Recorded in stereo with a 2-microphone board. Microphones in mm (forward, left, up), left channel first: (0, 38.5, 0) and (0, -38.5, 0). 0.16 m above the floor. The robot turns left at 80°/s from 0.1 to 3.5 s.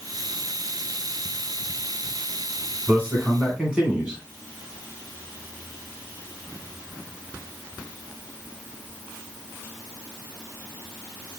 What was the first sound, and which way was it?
A man speaking, 20° right (ahead or behind).